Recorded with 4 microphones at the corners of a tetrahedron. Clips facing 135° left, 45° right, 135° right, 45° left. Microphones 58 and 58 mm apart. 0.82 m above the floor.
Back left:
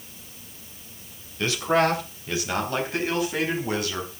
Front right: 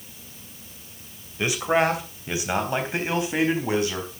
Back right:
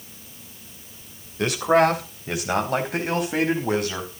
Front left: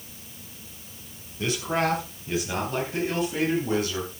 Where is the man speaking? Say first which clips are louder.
Even, back right 8 dB; 120° right, 3 m; by 4.0 s 110° right, 5 m.